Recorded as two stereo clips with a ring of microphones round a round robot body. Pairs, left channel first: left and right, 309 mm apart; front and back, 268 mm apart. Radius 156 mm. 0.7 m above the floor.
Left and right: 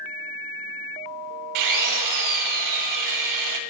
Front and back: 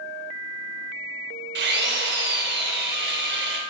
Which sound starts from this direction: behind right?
A drill, at 1.6 s.